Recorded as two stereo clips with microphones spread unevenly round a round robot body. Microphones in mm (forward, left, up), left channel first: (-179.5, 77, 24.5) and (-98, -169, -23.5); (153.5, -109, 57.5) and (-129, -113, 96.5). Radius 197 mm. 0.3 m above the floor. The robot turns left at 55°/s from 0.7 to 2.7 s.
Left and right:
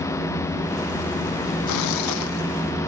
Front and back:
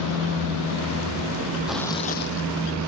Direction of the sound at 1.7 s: 95° left.